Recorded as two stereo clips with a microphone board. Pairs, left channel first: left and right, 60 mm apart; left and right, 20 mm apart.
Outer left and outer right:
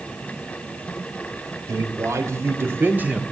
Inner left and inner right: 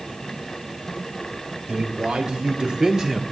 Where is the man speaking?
65° right (ahead or behind), 2.5 m; by 3.2 s 15° right (ahead or behind), 1.2 m.